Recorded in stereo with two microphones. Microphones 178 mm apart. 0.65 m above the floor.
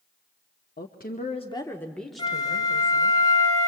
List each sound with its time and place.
0.8 s a woman speaking: 60° left (ahead or behind), 1.3 m; by 3.2 s 15° right (ahead or behind), 3.5 m
2.2 s a flute: 20° left (ahead or behind), 1.8 m